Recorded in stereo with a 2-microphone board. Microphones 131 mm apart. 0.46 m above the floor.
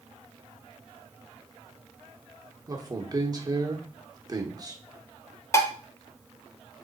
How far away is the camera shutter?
I don't hear a camera shutter.